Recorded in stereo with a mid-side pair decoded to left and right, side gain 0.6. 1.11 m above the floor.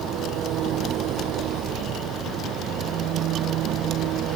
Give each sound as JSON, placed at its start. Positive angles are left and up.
{"t": 0.0, "sound": "an engine running", "azimuth_deg": -60}